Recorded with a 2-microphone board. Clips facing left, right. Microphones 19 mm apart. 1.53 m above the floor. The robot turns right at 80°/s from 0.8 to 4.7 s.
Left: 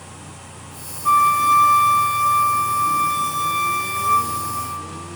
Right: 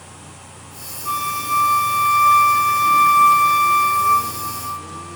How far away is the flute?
About 1.3 m.